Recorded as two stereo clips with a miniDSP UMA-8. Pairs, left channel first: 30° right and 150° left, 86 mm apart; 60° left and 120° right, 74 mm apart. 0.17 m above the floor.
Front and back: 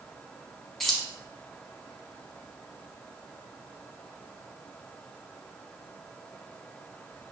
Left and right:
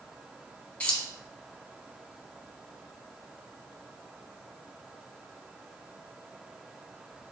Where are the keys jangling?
60° left, 0.7 m.